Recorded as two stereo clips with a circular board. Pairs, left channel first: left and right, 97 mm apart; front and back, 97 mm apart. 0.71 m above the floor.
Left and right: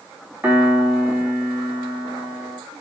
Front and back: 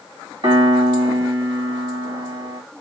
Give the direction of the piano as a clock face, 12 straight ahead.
5 o'clock.